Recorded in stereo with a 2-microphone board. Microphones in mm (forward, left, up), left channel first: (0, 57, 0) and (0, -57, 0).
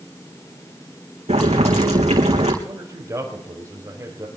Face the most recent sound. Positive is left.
turn(degrees=-30)  # may be behind; listen again after turning